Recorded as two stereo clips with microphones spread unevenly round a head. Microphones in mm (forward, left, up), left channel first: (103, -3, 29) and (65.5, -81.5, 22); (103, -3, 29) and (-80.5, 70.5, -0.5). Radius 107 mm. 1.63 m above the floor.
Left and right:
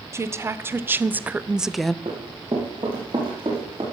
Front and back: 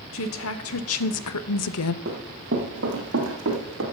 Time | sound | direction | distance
0.1 | a woman speaking | 55° right | 1.4 m
2.0 | running footsteps | 155° right | 3 m